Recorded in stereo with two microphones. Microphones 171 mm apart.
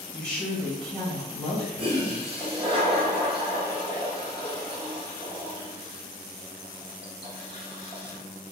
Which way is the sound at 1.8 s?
30° right (ahead or behind).